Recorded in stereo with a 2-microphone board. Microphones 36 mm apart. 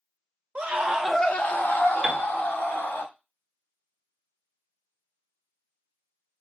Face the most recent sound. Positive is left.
turn(degrees=0)  # may be behind; listen again after turning